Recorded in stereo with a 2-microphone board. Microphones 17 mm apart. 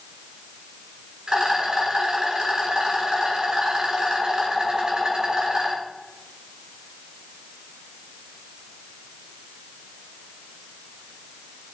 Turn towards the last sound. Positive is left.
turn(degrees=-45)  # may be behind; listen again after turning